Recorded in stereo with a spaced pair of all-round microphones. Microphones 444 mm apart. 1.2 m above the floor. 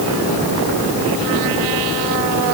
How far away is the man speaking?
I don't hear a man speaking.